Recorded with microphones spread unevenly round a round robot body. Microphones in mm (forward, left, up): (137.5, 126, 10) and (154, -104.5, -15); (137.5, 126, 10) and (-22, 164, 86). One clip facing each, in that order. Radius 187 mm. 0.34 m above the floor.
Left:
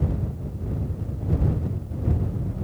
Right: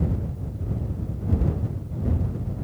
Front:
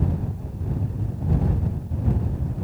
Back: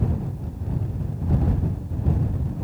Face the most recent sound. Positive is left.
No sound to turn to.